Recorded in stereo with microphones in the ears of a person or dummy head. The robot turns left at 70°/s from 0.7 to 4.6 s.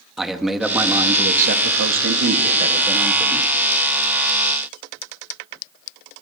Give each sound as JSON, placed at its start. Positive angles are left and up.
{"t": 0.2, "sound": "a man speaking", "azimuth_deg": -5, "distance_m": 2.0}